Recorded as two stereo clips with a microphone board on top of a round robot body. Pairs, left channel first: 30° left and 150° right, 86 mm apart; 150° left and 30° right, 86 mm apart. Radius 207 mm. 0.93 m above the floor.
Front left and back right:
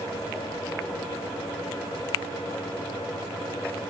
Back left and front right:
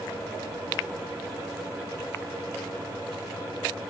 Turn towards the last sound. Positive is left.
No sound to turn to.